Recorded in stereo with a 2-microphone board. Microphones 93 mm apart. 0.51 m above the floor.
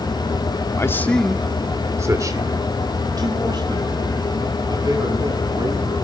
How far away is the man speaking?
About 0.9 m.